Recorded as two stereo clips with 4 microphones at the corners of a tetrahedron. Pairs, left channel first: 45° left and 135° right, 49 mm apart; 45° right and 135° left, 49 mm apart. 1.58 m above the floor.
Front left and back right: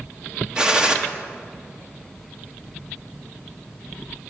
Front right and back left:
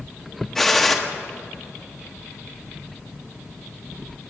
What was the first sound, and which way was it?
A gunshot, 110° right.